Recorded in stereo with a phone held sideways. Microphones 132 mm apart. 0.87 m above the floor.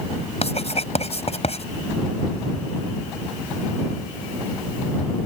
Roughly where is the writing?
Left.